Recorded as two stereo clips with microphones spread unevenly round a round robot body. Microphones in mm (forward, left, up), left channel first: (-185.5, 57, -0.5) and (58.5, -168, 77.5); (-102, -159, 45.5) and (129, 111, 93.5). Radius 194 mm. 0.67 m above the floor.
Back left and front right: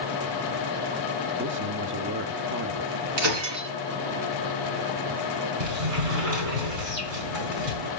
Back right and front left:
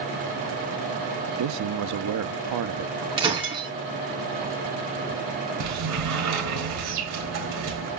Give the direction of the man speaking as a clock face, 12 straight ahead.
11 o'clock.